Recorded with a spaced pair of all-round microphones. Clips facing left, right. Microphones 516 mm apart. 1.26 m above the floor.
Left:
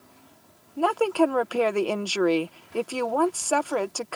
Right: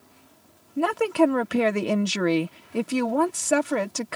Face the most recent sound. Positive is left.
turn(degrees=-40)  # may be behind; listen again after turning